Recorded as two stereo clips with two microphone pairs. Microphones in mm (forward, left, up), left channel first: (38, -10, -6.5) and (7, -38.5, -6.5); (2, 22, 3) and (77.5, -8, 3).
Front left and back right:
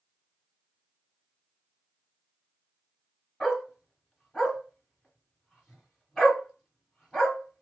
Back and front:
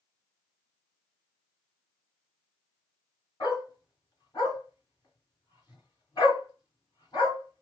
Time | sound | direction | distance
3.4 | a dog barking | 120° left | 2.0 m